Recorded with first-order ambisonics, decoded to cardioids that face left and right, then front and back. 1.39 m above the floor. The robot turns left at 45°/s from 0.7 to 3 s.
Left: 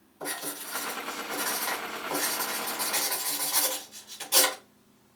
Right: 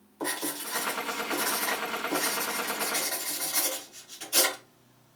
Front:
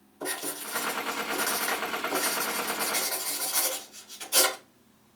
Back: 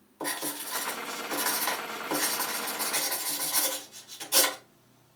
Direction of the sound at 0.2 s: 140° right.